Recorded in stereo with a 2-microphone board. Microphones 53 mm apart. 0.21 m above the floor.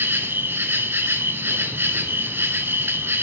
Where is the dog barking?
I don't hear a dog barking.